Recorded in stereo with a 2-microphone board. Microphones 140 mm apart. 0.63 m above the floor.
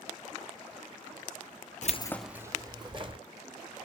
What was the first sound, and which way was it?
Keys jangling, 60° left (ahead or behind).